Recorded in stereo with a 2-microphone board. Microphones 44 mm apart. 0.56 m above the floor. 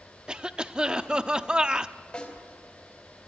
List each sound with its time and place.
0.3 s a cough: 15° right (ahead or behind), 0.6 m
2.1 s a snare drum: 30° left (ahead or behind), 3.5 m